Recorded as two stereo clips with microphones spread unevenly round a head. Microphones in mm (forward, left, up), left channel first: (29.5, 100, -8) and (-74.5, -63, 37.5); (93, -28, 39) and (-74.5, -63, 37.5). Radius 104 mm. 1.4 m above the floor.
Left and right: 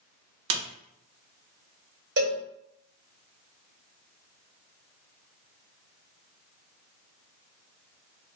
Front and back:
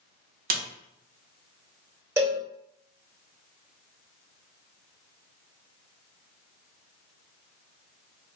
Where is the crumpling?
No crumpling in this recording.